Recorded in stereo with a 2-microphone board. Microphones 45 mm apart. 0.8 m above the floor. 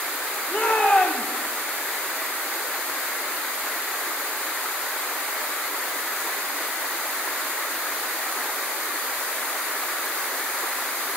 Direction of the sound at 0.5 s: 35° left (ahead or behind).